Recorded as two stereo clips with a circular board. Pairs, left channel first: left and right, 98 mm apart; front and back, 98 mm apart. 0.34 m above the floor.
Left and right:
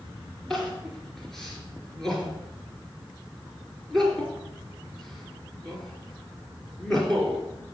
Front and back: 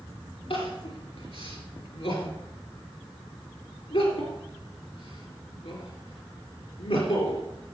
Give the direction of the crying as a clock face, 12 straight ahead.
12 o'clock.